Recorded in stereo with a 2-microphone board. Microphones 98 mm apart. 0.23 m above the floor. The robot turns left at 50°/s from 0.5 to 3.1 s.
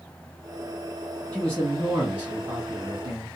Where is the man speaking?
15° left, 2 m; by 3.3 s 75° right, 2 m.